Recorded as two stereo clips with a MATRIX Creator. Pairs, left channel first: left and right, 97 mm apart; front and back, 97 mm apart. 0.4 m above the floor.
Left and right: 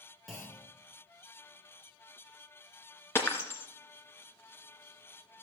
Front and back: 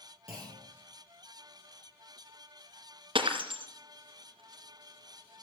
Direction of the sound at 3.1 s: 155° left.